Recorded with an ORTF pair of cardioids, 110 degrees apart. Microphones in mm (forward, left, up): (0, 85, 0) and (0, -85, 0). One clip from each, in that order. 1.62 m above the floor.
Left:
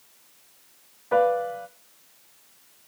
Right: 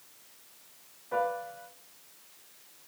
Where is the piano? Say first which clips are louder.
Left 10 dB; 55° left, 0.7 m.